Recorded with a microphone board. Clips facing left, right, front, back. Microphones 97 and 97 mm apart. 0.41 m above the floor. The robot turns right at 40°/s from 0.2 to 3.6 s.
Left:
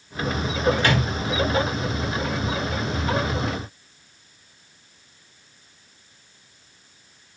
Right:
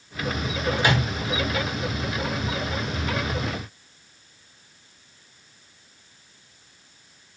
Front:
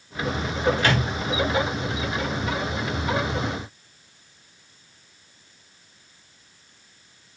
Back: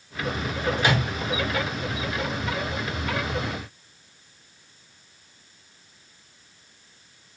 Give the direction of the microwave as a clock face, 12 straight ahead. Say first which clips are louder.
Left 1 dB, front 1 dB; 5 o'clock.